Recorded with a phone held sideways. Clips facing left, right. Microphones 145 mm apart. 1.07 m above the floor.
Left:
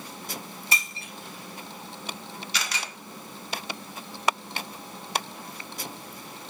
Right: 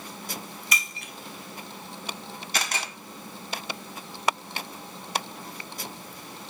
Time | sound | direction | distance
0.7 | breaking glass | 30° left (ahead or behind) | 1.1 m
2.5 | a camera shutter | 55° right (ahead or behind) | 1.2 m